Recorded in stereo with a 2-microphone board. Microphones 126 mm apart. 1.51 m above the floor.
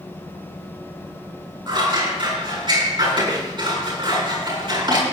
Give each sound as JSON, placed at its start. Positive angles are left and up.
{"t": 1.7, "sound": "scissors", "side_deg": -40, "distance_m": 6.5}